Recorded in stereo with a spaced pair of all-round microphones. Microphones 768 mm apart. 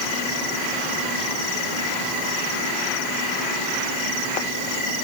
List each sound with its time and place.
Only background noise.